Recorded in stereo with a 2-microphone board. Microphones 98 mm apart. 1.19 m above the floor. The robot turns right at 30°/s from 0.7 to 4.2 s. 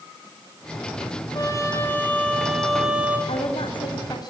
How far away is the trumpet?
About 6.5 m.